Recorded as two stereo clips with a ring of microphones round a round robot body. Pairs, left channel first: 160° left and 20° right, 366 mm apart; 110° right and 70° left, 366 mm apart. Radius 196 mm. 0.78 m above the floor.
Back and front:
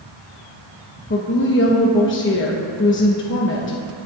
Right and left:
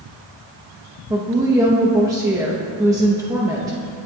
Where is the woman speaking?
140° left, 1.0 m.